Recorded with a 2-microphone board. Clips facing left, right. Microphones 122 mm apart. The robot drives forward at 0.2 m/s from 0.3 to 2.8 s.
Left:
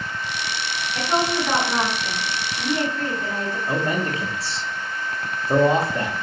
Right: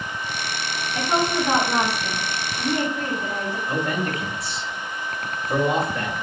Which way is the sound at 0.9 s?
15° right (ahead or behind).